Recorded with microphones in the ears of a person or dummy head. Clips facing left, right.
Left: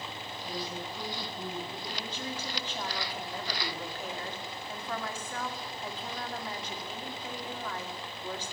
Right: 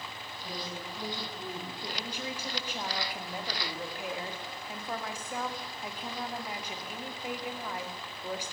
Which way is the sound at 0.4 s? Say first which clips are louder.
Left 2 dB; 5° left (ahead or behind).